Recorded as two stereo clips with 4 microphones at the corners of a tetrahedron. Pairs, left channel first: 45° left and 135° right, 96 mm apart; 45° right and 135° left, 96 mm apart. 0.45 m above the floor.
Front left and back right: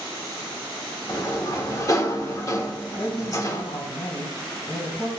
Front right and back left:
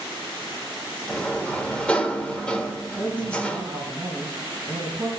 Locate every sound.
1.1 s a sliding door: 25° left, 1.3 m
3.0 s a woman speaking: 80° left, 4 m